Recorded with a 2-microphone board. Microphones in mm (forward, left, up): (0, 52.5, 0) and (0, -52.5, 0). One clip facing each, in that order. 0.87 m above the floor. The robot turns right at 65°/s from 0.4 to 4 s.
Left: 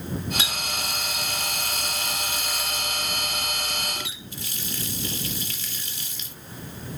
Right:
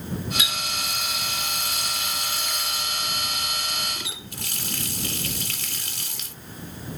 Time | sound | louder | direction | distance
0.4 | a running tap | even | 35° left | ?